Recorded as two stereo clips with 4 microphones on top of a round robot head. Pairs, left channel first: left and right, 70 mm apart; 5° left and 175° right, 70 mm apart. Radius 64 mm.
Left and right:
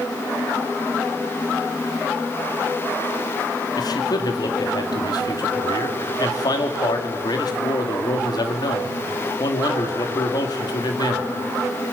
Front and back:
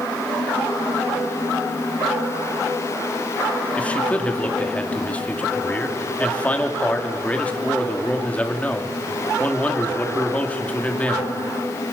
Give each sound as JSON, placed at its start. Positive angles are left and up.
{"t": 3.8, "sound": "a man speaking", "azimuth_deg": 75, "distance_m": 3.0}